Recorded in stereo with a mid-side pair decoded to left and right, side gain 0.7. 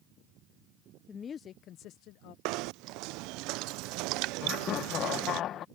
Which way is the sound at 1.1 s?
25° left.